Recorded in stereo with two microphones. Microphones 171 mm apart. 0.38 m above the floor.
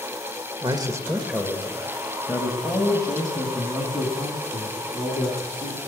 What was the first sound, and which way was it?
A man speaking, 25° right (ahead or behind).